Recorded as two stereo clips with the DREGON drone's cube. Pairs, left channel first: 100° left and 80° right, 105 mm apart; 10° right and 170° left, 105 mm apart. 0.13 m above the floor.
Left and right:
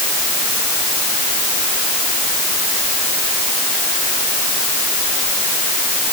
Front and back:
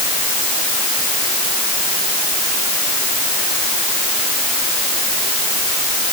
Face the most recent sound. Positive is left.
No sound to turn to.